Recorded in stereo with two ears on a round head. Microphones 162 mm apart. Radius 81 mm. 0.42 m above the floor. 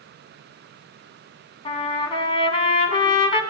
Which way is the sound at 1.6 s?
30° left (ahead or behind).